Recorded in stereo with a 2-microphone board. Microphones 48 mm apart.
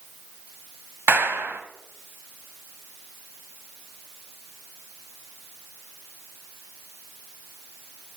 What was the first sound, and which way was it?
A clap, 45° right (ahead or behind).